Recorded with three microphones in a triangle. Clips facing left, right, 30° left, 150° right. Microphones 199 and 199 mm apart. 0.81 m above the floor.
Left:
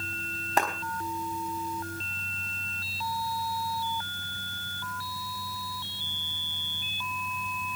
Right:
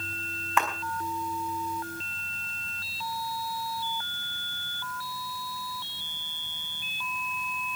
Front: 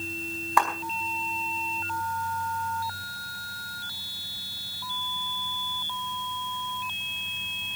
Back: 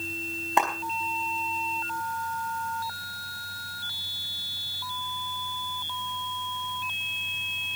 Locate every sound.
0.6 s a clap: 145° left, 4.5 m